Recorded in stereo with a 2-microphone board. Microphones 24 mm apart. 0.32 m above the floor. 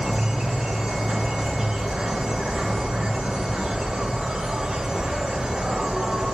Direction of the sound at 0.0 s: 35° right (ahead or behind).